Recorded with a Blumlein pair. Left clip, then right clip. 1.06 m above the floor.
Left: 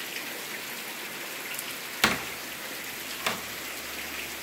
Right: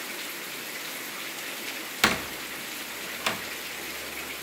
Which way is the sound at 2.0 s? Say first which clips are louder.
Right 1 dB; 5° right.